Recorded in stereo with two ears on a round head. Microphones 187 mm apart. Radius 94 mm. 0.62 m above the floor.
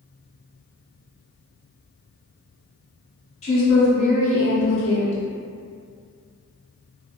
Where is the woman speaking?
30° left (ahead or behind), 1.0 m.